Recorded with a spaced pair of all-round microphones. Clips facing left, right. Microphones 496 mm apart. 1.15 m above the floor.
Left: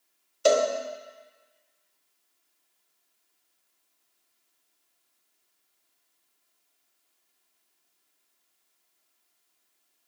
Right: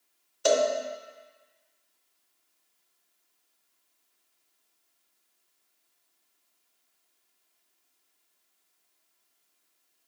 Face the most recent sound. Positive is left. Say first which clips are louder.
# left 2 dB
turn(degrees=-5)  # may be behind; listen again after turning